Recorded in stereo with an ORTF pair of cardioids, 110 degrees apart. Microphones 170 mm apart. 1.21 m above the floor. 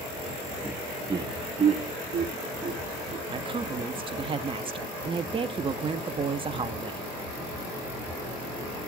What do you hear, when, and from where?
0.6 s laughter: 10° right, 1.2 m; by 3.2 s 55° right, 2.5 m
3.3 s a woman speaking: 30° right, 2 m